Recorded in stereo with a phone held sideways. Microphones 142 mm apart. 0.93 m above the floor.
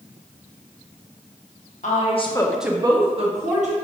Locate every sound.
1.8 s a woman speaking: 60° left (ahead or behind), 0.8 m; by 3.7 s 60° right (ahead or behind), 1.3 m